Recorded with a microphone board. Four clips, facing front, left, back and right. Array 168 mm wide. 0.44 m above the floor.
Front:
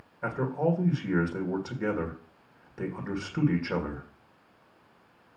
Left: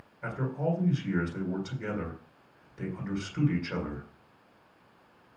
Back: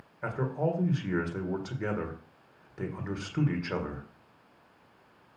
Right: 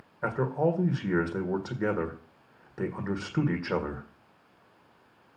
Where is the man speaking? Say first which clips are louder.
Right 5 dB, front 3 dB; 80° right, 1.8 m.